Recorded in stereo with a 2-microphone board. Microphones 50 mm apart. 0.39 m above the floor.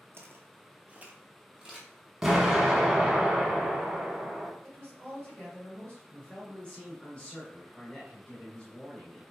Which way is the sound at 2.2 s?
10° right (ahead or behind).